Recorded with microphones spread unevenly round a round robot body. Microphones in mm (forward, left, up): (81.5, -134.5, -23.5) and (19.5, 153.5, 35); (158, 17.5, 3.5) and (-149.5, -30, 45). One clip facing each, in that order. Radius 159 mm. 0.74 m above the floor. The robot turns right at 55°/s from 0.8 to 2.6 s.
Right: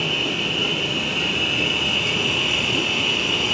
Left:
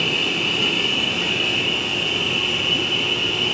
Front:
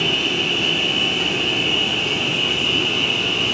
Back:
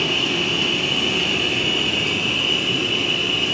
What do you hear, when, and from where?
0.0 s an insect: straight behind, 1.0 m; by 3.5 s 80° right, 1.0 m